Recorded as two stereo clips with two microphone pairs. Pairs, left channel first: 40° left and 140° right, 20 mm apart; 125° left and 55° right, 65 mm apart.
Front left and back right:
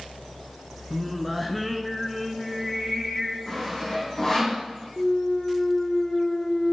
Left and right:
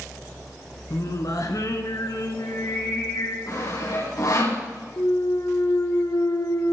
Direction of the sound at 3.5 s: 105° left.